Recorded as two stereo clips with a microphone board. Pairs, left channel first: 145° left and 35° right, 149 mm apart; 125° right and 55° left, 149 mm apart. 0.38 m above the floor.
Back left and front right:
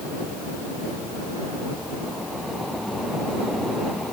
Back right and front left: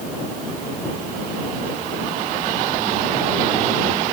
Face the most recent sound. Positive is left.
No sound to turn to.